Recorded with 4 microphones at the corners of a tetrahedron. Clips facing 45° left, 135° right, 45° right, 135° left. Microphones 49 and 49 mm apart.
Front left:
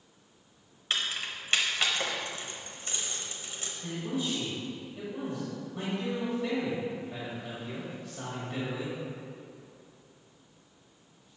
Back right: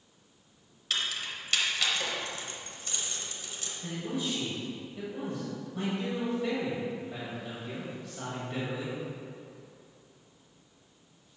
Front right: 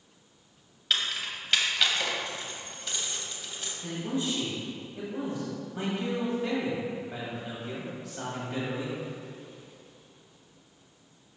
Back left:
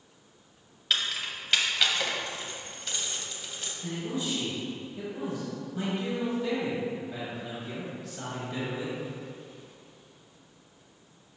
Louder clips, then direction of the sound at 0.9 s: Front left 1 dB, even; 45° left.